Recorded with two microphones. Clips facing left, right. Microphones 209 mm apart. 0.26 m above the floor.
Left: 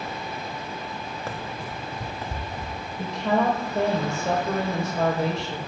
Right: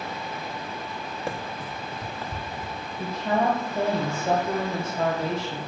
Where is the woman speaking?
75° left (ahead or behind), 5 m.